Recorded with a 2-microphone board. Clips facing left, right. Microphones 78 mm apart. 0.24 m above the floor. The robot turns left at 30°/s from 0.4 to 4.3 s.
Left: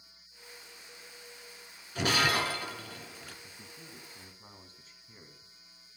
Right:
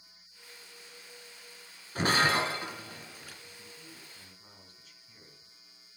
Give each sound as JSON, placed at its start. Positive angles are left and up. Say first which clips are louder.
{"t": 1.9, "sound": "breaking glass", "louder": "right 2 dB", "side_deg": -40, "distance_m": 1.9}
{"t": 3.4, "sound": "a man speaking", "louder": "even", "side_deg": 50, "distance_m": 2.5}